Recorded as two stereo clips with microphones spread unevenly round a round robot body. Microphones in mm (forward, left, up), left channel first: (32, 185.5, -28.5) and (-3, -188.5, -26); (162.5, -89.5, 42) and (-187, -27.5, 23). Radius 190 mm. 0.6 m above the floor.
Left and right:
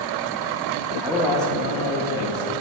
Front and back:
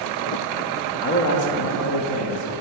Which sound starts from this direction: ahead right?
A man speaking, at 1.0 s.